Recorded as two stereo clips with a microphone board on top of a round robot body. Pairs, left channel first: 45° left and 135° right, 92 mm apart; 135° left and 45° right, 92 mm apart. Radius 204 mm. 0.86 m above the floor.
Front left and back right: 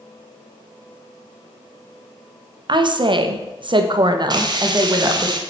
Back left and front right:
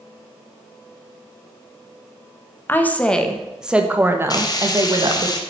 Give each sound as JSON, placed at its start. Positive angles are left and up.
{"t": 2.7, "sound": "a woman speaking", "azimuth_deg": -160, "distance_m": 1.7}
{"t": 4.3, "sound": "frying", "azimuth_deg": 180, "distance_m": 1.2}